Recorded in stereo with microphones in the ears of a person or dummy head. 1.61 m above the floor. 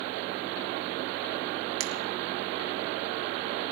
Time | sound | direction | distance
1.8 | a finger snap | 65° right (ahead or behind) | 1.2 m